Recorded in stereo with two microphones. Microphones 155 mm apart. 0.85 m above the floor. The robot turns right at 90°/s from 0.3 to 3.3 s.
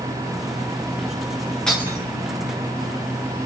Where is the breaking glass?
175° left, 5.5 m; by 2.0 s 155° right, 5.5 m.